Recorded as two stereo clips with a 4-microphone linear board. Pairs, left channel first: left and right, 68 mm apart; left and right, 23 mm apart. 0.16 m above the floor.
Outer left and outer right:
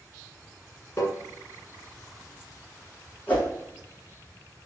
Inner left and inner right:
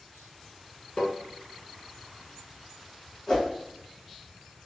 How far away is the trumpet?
I don't hear a trumpet.